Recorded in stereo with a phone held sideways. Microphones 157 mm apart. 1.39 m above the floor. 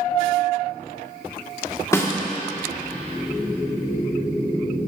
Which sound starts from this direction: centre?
A snare drum, at 1.9 s.